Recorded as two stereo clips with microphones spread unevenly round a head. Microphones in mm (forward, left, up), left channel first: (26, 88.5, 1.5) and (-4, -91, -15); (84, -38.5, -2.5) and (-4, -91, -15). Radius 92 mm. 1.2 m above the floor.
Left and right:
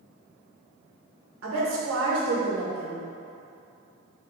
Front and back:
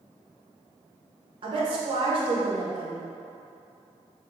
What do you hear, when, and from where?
1.4 s a woman speaking: 120° right, 1.3 m